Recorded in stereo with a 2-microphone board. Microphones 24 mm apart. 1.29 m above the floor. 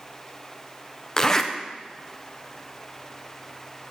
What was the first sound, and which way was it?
A zipper, 20° left (ahead or behind).